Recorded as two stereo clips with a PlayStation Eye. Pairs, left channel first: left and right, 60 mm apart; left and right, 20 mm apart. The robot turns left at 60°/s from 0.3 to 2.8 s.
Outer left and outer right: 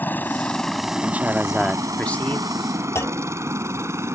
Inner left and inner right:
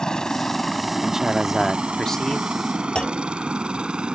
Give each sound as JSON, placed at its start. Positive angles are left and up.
{"t": 0.0, "sound": "a helicopter", "side_deg": 30}
{"t": 1.0, "sound": "a man speaking", "azimuth_deg": -140}
{"t": 3.0, "sound": "a clunk", "side_deg": 50}